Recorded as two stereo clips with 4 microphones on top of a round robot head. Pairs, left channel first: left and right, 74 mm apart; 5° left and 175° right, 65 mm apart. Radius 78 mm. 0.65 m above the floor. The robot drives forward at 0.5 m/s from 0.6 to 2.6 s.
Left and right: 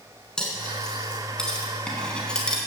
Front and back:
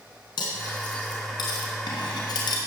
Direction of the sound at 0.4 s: 10° left.